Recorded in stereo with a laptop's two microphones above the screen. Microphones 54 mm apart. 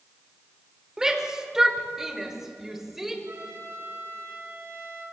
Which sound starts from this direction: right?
A trumpet, at 3.2 s.